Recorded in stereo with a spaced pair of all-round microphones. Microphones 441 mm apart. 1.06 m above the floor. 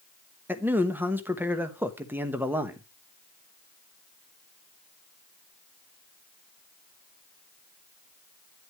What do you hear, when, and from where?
0.5 s a man speaking: 5° right (ahead or behind), 1.1 m